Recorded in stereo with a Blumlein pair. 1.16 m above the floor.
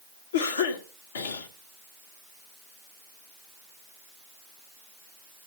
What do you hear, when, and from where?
0.3 s a cough: 65° left, 1.6 m